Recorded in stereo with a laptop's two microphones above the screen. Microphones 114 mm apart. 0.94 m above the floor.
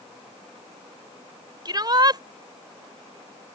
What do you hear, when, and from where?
1.6 s a shout: 40° right (ahead or behind)